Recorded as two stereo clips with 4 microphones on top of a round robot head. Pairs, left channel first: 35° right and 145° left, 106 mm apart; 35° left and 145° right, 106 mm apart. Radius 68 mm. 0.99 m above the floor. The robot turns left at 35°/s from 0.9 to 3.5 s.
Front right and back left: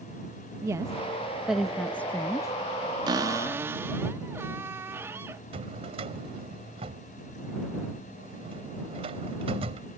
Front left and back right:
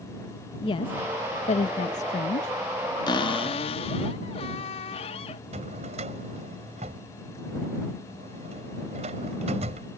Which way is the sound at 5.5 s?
175° right.